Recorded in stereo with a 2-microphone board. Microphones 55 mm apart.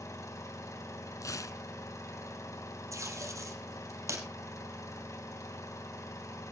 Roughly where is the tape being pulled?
Right.